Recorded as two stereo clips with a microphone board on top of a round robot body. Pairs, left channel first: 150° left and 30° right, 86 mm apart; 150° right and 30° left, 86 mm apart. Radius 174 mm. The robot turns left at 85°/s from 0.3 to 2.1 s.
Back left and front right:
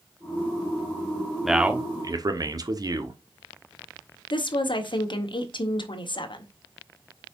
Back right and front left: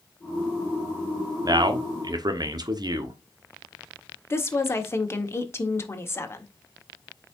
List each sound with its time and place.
1.4 s a man speaking: 60° left, 1.5 m; by 3.2 s 5° left, 1.5 m
4.3 s a woman speaking: 155° left, 1.6 m